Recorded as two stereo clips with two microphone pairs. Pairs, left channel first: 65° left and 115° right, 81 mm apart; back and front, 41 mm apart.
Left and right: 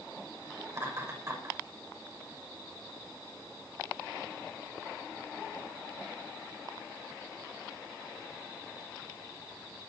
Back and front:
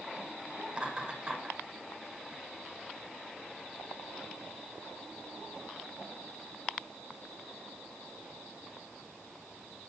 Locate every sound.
0.7 s laughter: 65° right, 6.5 m